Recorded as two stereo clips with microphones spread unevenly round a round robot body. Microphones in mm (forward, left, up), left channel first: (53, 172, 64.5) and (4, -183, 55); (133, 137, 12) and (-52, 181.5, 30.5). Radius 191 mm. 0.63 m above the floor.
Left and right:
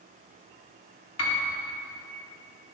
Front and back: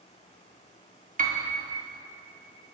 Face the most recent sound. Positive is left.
turn(degrees=125)